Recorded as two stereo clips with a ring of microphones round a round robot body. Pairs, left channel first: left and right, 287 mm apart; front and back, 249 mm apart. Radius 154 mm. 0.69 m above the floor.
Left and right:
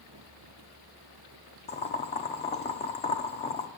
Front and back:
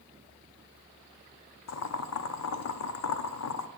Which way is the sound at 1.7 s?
20° left.